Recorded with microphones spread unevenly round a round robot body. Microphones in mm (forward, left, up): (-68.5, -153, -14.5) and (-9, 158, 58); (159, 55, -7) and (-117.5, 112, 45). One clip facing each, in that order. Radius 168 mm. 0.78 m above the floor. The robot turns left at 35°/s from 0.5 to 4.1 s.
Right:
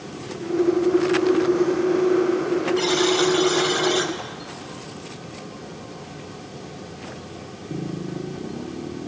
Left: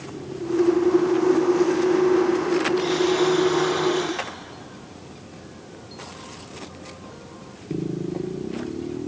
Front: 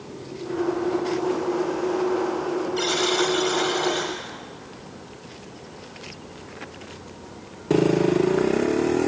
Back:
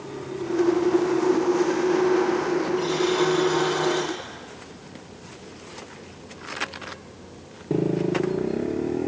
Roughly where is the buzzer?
Ahead right.